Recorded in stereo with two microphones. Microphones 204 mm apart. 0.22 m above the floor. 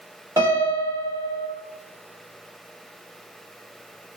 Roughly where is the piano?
Centre.